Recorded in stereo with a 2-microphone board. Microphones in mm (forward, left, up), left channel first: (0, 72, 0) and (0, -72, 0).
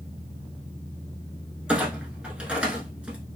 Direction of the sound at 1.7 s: 5° right (ahead or behind).